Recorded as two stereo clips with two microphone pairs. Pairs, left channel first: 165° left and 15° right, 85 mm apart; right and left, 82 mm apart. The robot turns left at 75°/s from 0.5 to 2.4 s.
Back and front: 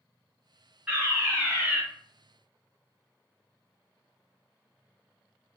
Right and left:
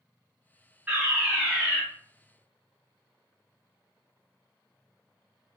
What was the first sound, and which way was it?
A fire alarm, 45° left.